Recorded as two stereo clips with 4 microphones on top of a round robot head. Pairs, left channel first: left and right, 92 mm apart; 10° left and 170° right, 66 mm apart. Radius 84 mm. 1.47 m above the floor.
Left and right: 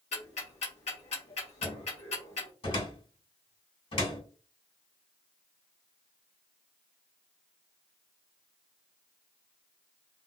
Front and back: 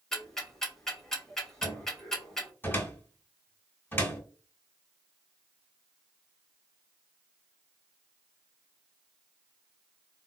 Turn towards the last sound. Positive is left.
turn(degrees=65)